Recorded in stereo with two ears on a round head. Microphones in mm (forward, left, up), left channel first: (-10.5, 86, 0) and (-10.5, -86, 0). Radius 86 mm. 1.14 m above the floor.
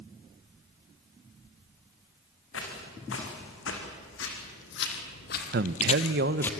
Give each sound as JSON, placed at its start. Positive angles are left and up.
{"t": 2.5, "sound": "footsteps", "side_deg": 75, "distance_m": 5.5}
{"t": 5.5, "sound": "a man speaking", "side_deg": -50, "distance_m": 0.8}